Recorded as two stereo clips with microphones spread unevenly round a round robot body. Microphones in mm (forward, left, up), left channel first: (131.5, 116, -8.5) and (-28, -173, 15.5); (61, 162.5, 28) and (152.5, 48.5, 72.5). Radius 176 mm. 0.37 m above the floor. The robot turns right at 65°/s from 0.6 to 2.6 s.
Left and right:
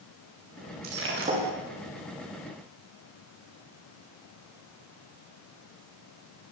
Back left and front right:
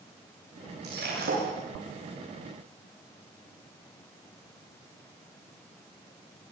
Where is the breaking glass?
80° right, 10 m; by 1.5 s 40° right, 10 m.